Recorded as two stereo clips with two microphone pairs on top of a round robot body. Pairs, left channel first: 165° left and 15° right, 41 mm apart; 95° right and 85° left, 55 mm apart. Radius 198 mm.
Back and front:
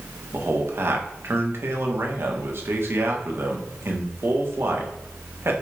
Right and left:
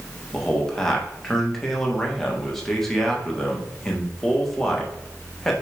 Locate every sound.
0.3 s a man speaking: 10° right, 1.8 m